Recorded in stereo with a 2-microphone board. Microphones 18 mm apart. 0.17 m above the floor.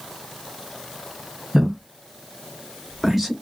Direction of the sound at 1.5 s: 25° right (ahead or behind).